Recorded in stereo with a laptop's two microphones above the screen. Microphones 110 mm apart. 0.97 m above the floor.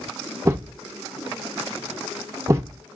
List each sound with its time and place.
0.5 s a thud: 25° right (ahead or behind), 0.6 m